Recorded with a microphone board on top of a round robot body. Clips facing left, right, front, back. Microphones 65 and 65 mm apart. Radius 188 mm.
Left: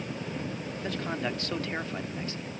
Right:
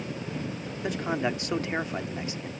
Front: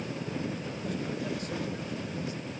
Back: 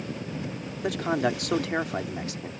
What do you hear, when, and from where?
0.8 s a man speaking: 165° right